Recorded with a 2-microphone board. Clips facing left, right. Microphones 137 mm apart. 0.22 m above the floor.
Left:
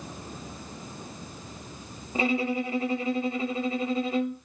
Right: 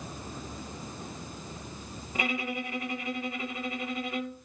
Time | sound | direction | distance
2.1 | a violin | 30° left (ahead or behind) | 0.8 m